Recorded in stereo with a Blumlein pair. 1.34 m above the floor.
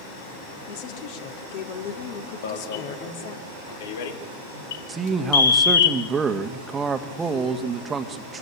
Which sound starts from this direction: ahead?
A man speaking, at 4.9 s.